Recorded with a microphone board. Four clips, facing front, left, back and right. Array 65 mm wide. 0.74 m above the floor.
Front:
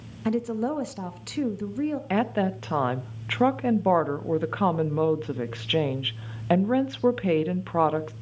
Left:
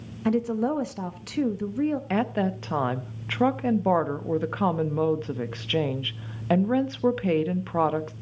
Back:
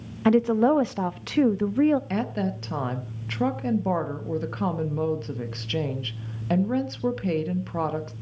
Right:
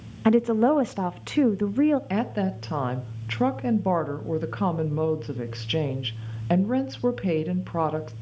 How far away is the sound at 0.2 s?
About 0.6 m.